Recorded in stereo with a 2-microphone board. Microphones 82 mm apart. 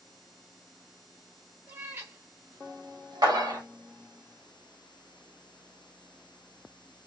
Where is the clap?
50° right (ahead or behind), 1.3 m.